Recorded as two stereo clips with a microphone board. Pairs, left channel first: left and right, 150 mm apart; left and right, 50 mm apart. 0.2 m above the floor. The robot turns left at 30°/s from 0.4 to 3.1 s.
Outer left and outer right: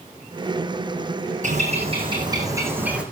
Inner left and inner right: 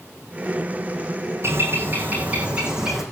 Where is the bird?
125° right, 4 m; by 3.0 s 175° right, 4 m.